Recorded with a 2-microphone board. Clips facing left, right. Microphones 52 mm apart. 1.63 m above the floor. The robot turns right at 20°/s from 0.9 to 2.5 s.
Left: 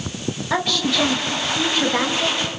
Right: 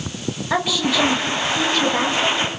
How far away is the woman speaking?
About 3 m.